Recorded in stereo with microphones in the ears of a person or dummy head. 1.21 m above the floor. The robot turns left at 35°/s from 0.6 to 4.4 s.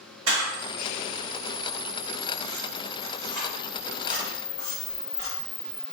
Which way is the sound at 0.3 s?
100° right.